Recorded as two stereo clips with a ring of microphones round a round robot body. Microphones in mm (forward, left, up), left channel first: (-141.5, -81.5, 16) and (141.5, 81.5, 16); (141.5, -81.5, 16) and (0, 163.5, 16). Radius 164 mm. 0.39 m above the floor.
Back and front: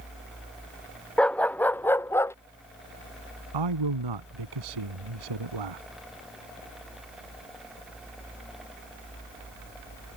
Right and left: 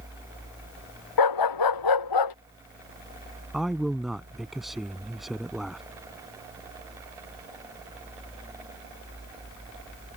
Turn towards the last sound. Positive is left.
turn(degrees=30)